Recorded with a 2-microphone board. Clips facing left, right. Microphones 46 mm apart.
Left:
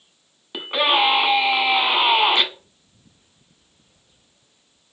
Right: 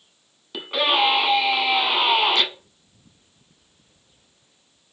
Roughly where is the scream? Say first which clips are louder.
Left 2 dB; left.